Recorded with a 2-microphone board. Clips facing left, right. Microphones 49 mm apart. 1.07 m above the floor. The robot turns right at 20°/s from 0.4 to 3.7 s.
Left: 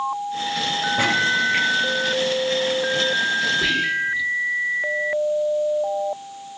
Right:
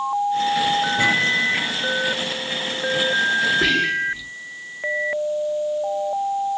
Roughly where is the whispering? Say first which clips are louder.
Right 2 dB; right.